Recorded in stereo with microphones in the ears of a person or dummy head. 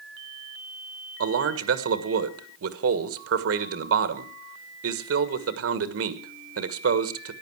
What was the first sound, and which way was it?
A man speaking, 65° right (ahead or behind).